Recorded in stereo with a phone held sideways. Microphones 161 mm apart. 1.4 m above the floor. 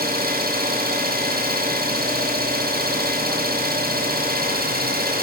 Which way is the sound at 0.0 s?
70° right (ahead or behind).